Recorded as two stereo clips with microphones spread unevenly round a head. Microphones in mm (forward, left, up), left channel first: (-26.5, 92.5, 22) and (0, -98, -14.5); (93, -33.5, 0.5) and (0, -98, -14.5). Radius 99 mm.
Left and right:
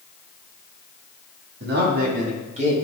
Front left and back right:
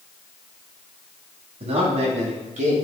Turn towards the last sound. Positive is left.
turn(degrees=-140)